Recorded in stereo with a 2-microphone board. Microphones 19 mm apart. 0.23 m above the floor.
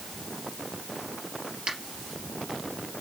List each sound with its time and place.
1.7 s a finger snap: 55° right (ahead or behind), 3.5 m